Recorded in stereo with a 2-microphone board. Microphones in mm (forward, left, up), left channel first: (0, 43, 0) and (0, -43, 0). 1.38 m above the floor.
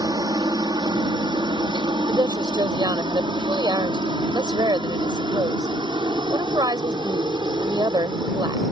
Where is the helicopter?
55° right (ahead or behind).